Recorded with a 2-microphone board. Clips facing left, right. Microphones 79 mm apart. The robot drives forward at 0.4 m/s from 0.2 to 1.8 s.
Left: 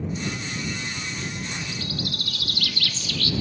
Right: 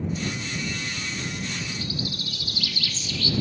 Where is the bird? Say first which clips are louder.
Even; 65° left (ahead or behind), 1.4 m.